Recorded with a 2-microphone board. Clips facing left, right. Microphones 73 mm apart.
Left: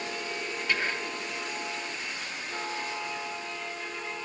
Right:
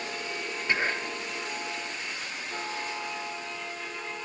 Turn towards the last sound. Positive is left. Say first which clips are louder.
# right 2 dB
turn(degrees=-25)  # may be behind; listen again after turning